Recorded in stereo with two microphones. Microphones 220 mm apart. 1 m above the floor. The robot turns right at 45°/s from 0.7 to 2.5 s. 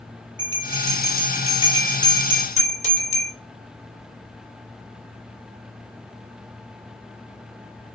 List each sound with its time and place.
0.4 s a bell: 65° left (ahead or behind), 2 m; by 3.3 s 15° right (ahead or behind), 2 m